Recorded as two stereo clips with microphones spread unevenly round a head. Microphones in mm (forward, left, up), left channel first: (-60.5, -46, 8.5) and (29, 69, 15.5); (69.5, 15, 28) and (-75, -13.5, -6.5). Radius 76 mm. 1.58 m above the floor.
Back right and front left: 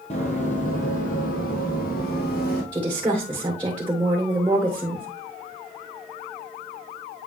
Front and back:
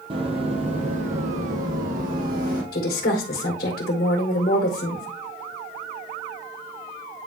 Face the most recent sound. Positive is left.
turn(degrees=-25)